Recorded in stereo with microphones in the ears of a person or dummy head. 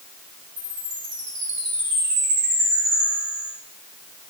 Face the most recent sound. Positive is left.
turn(degrees=-60)  # may be behind; listen again after turning